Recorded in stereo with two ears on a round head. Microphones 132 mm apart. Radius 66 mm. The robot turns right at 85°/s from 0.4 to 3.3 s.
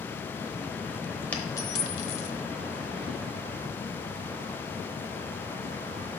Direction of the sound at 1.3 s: 10° left (ahead or behind).